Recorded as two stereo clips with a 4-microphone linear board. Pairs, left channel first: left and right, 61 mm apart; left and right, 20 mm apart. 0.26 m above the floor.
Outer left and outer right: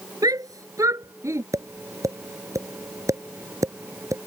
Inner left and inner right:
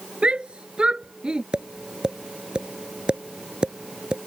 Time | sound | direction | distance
0.2 | a shout | 65° right (ahead or behind) | ?
1.5 | tapping | 50° right (ahead or behind) | ?